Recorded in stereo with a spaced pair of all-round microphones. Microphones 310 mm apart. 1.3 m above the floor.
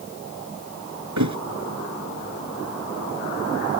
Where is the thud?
65° right (ahead or behind).